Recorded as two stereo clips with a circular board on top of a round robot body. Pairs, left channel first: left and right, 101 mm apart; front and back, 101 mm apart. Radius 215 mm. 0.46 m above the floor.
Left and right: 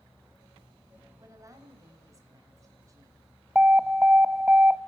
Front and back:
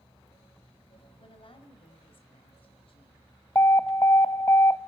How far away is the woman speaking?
About 4 m.